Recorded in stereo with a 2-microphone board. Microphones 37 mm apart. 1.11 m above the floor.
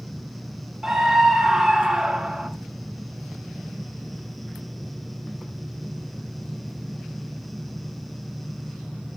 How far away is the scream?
About 2.0 m.